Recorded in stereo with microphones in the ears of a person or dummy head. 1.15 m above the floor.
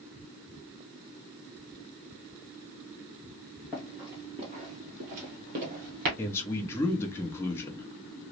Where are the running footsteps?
Centre (ahead or behind), 1.2 m; by 6.1 s 50° right (ahead or behind), 1.8 m.